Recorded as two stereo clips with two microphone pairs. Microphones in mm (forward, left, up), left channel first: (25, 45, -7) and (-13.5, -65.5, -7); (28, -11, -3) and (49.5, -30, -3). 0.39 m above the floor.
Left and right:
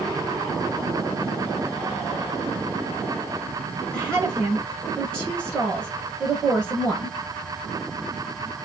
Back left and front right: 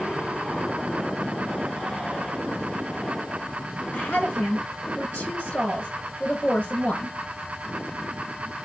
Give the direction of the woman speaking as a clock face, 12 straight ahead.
7 o'clock.